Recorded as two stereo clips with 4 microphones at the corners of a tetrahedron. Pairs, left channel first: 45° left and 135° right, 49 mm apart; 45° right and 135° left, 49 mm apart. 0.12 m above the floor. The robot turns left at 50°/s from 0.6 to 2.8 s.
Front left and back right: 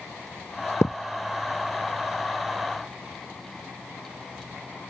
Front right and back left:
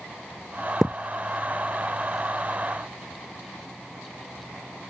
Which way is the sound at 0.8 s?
45° left.